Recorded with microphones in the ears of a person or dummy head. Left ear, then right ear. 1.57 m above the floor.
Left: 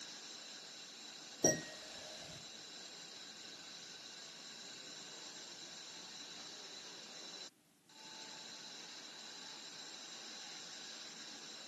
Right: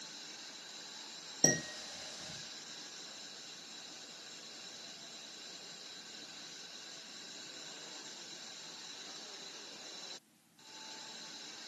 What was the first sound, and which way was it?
Dishes clattering, 25° right (ahead or behind).